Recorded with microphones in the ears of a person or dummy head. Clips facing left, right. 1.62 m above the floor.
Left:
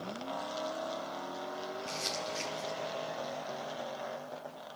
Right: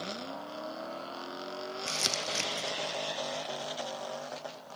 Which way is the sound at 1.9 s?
75° right (ahead or behind).